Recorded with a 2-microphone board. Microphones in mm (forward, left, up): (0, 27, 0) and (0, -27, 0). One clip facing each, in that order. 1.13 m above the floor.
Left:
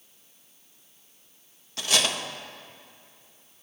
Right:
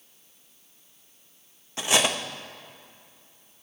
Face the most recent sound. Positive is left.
turn(degrees=-20)  # may be behind; listen again after turning